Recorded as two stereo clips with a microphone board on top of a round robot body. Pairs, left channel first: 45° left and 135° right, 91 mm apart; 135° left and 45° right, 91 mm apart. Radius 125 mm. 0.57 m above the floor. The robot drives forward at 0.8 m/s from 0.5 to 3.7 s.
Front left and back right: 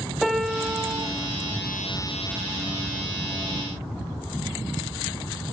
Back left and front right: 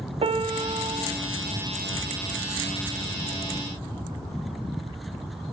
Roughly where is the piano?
Ahead right.